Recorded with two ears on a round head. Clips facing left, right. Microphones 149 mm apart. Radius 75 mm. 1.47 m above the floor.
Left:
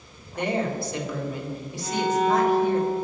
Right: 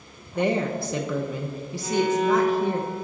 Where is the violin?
40° right (ahead or behind), 2 m.